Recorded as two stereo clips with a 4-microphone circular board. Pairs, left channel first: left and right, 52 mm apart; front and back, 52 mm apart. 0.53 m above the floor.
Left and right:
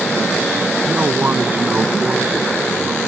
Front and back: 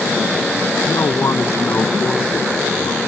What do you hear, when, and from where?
0.8 s a man speaking: 30° right